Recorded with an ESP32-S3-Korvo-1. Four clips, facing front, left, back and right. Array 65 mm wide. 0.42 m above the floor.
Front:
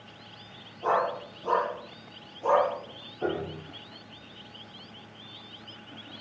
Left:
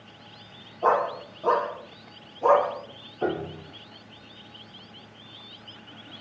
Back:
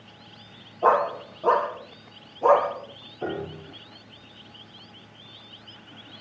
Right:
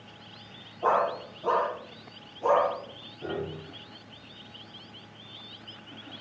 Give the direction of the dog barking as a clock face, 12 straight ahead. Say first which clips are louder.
Left 2 dB, back 6 dB; 7 o'clock.